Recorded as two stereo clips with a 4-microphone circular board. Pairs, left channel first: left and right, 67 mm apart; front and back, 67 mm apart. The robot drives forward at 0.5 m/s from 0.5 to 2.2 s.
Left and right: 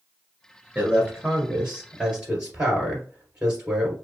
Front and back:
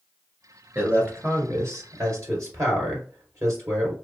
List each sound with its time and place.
0.8 s a man speaking: 145° right, 1.4 m; by 4.0 s 160° right, 1.9 m